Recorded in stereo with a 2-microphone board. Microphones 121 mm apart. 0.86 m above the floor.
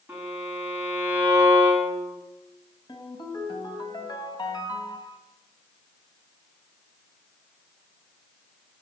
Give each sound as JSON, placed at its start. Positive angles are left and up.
{"t": 0.1, "sound": "a violin", "side_deg": -15, "distance_m": 6.0}
{"t": 2.9, "sound": "a ringtone", "side_deg": 35, "distance_m": 2.5}